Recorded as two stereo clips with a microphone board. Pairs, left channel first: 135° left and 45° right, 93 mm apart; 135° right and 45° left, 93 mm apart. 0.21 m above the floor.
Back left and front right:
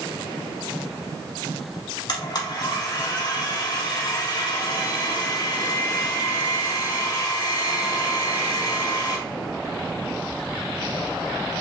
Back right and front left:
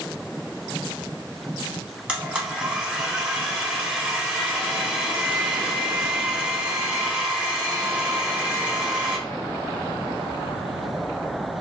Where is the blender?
120° left, 0.8 m.